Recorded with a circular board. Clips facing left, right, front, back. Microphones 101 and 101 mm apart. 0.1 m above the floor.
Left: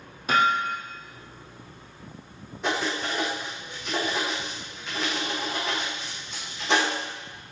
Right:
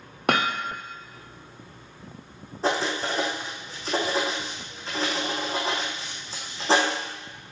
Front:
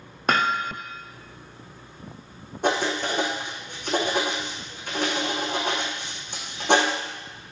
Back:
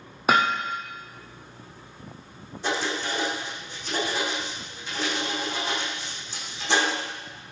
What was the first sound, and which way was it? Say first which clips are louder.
Hammering: left 2 dB, back 1 dB; 95° right.